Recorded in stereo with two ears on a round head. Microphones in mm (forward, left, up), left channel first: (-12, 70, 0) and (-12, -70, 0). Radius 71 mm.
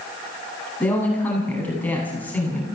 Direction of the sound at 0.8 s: 10° left (ahead or behind).